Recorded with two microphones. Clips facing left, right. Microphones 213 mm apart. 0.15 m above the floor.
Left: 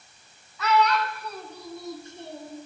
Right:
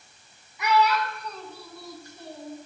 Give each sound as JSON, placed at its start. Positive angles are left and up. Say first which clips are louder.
{"t": 0.6, "sound": "a child speaking", "louder": "even", "side_deg": -15, "distance_m": 0.8}